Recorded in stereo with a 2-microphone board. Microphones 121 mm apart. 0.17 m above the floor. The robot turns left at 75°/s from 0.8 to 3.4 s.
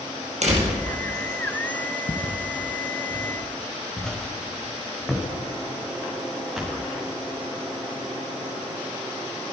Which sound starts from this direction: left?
Footsteps, at 2.1 s.